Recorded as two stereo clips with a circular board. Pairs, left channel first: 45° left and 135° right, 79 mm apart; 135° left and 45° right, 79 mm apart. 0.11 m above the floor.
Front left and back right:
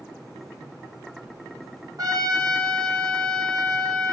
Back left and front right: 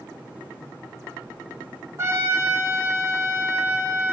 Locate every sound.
2.0 s a trumpet: 100° right, 1.0 m